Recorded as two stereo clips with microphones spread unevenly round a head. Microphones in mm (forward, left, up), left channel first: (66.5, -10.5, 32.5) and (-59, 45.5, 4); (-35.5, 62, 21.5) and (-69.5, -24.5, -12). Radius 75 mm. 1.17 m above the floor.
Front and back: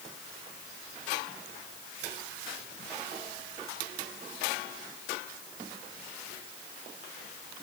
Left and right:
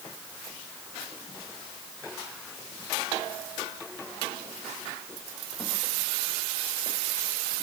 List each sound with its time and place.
Only background noise.